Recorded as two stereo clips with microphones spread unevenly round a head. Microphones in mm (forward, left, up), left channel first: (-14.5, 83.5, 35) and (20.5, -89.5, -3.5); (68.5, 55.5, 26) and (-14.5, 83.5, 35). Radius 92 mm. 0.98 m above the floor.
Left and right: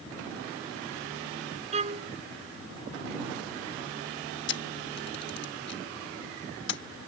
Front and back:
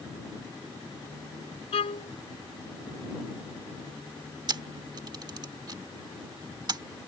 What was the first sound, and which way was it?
A violin, 20° right.